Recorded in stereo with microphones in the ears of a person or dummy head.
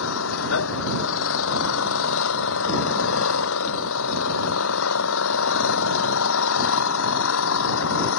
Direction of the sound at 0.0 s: 85° left.